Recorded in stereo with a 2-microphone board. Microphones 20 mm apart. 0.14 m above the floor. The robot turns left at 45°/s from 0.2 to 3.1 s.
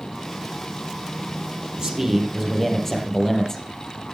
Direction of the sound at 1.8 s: 145° right.